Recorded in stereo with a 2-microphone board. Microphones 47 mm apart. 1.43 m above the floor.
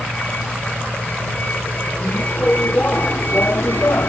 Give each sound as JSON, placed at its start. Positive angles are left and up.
{"t": 0.0, "sound": "a vehicle", "side_deg": 30}